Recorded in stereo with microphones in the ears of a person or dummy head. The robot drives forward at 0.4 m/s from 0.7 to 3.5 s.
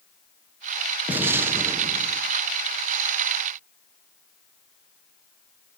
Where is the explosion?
10° right (ahead or behind), 0.8 m; by 2.2 s 15° right (ahead or behind), 0.5 m.